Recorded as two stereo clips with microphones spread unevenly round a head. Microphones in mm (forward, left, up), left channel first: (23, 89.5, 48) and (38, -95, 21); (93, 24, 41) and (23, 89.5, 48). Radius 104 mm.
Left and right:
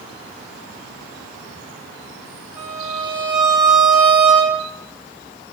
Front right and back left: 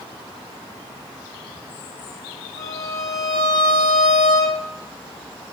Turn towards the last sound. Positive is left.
turn(degrees=-160)